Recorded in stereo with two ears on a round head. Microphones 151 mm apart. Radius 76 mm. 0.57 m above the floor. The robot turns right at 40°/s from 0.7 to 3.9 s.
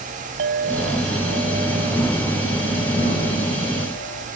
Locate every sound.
0.4 s a clink: 70° right; by 4.3 s 55° left